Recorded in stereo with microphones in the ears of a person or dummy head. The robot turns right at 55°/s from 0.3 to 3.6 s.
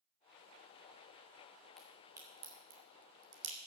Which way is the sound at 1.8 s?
5° left (ahead or behind).